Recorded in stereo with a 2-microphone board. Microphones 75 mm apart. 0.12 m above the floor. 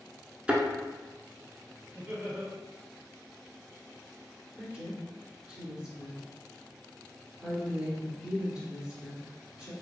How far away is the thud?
About 0.6 m.